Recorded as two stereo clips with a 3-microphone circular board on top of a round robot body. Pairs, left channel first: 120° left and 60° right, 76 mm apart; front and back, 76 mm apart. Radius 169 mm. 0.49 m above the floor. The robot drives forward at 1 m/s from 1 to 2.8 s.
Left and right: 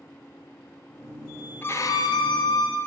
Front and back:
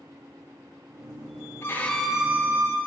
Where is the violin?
60° left, 0.8 m; by 2.8 s 135° left, 1.0 m.